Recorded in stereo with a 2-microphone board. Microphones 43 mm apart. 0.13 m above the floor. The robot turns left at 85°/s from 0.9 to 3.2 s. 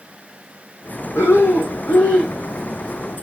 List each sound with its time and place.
1.1 s breathing: 105° left, 1.3 m; by 2.4 s 5° left, 1.3 m